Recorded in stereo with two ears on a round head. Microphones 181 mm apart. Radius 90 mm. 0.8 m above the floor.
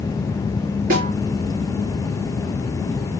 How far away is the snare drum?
About 4.5 m.